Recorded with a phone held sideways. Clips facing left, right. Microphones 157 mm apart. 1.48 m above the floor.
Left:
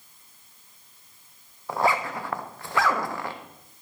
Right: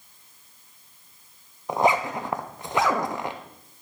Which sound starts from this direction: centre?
A zipper, at 1.7 s.